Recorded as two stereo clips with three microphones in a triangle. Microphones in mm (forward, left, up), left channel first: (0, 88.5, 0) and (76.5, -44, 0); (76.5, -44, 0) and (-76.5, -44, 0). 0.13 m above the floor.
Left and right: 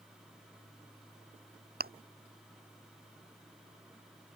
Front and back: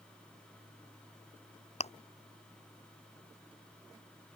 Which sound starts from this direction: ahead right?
Chewing, at 1.8 s.